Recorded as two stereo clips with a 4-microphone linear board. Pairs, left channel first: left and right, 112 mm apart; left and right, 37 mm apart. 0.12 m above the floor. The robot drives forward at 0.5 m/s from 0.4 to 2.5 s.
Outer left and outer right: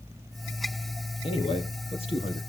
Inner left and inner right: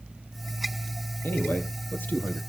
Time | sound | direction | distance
1.2 | a man speaking | 60° left (ahead or behind) | 4 m